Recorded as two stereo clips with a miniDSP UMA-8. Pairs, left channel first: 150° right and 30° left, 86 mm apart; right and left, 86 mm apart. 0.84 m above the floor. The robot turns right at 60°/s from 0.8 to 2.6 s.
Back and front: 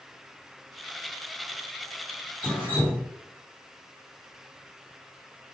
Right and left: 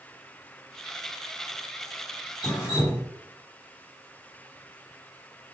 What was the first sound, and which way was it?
Dripping, 50° right.